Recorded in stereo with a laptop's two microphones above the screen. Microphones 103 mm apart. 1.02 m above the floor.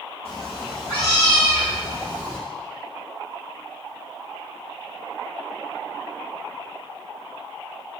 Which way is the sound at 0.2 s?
70° left (ahead or behind).